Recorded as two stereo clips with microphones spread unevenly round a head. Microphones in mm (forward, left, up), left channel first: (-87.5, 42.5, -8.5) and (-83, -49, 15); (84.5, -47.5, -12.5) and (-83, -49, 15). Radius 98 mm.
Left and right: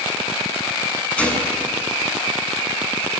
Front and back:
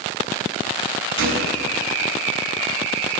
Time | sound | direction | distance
1.2 | a gunshot | 175° left | 8.5 m